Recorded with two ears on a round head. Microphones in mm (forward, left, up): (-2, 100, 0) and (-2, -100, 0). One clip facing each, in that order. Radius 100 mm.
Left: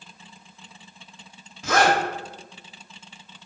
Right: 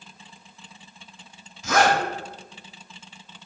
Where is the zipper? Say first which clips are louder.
Even; 45° left (ahead or behind), 1.0 m.